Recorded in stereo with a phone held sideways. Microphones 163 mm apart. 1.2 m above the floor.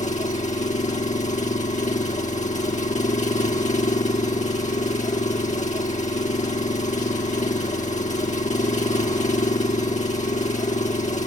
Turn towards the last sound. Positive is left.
turn(degrees=50)  # may be behind; listen again after turning